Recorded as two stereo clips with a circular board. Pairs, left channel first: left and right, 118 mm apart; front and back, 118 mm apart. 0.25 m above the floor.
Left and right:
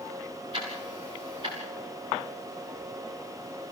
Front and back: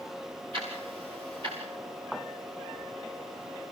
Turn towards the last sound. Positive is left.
turn(degrees=-135)